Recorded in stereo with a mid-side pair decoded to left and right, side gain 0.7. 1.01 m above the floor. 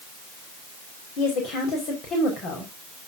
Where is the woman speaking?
55° left, 4.5 m.